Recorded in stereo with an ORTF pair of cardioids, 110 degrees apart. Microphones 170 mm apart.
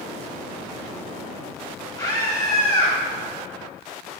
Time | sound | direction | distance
2.0 | a scream | 25° left | 3.5 m